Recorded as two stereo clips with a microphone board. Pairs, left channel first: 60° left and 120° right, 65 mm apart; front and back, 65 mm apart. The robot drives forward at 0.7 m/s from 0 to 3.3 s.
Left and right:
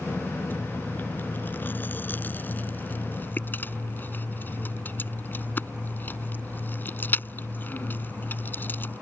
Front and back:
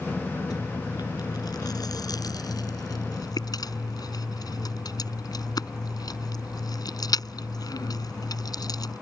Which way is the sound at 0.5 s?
Straight ahead.